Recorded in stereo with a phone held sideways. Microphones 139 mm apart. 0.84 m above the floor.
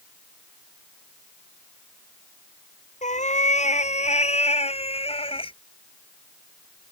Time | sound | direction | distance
3.0 | a cat meowing | 60° left (ahead or behind) | ?